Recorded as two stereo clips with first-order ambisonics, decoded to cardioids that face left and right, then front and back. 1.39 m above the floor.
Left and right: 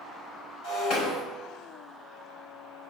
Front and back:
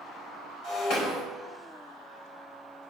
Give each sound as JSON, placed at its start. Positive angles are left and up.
{"t": 0.6, "sound": "breaking glass", "azimuth_deg": 45, "distance_m": 4.5}